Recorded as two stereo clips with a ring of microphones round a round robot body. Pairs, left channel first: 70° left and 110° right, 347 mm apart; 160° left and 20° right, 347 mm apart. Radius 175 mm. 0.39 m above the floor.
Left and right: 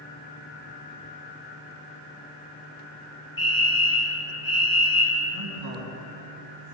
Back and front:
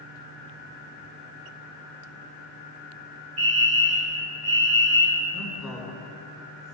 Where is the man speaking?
110° right, 4.5 m.